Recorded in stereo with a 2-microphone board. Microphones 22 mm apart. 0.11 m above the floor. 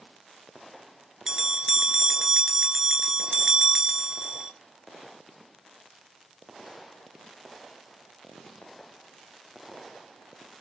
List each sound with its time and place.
1.3 s a bell: 25° right (ahead or behind), 1.0 m